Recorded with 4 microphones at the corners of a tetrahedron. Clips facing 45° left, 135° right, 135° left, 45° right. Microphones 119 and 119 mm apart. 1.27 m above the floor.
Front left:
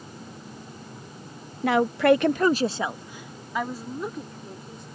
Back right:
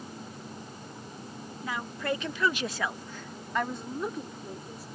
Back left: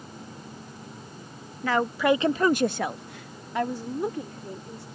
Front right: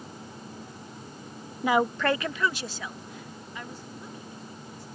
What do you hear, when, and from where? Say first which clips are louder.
1.6 s a woman speaking: front left 14 dB, back left 1 dB; 25° left; by 4.8 s 140° left